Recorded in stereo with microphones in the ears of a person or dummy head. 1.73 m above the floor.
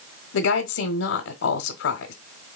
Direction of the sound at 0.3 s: 80° left.